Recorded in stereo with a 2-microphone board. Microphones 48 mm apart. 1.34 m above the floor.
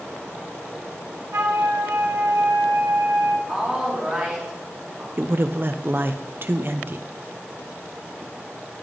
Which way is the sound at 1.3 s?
65° right (ahead or behind).